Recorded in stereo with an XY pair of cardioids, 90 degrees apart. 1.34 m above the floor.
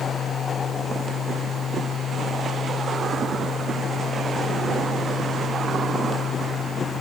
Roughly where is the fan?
Left.